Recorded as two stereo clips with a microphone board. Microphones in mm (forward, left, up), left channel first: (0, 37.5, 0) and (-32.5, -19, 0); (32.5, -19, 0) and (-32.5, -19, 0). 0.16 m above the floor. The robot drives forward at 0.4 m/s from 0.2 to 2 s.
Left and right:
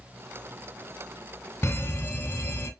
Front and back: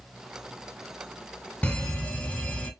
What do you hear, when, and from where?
1.6 s an alarm: 55° left, 0.9 m; by 2.7 s 70° left, 0.9 m